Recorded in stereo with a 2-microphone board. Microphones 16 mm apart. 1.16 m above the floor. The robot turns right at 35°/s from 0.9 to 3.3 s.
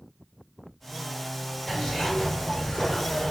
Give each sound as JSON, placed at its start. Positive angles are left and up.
{"t": 1.7, "sound": "a zipper", "azimuth_deg": 25, "distance_m": 1.4}